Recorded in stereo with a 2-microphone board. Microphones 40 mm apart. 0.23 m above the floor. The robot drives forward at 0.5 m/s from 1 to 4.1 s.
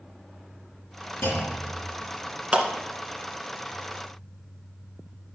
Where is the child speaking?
No child speaking in this recording.